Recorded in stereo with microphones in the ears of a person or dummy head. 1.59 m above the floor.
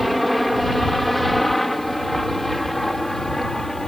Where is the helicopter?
5° right (ahead or behind); by 3.9 s centre (ahead or behind).